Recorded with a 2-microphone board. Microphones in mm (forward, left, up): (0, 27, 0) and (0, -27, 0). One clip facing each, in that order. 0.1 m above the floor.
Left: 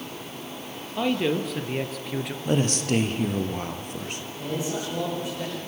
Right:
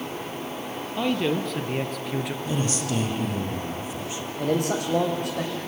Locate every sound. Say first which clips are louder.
1.0 s a man speaking: even; 5° left (ahead or behind), 2.5 m; by 2.4 s centre (ahead or behind), 1.4 m
2.5 s a man speaking: left 7 dB; 60° left (ahead or behind), 2.5 m
4.4 s a man speaking: right 6 dB; 70° right (ahead or behind), 6 m